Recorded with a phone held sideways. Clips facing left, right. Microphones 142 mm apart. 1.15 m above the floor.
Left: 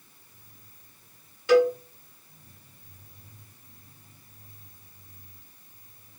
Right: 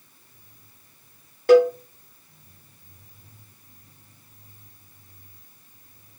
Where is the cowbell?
50° right (ahead or behind), 1.3 m.